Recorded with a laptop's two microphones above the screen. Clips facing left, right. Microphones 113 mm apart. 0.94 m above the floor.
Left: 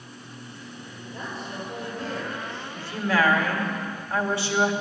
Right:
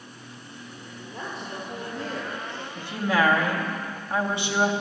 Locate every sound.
1.1 s a woman speaking: 75° right (ahead or behind), 3.5 m; by 2.6 s 65° right (ahead or behind), 2.0 m
2.8 s a woman speaking: 20° right (ahead or behind), 1.6 m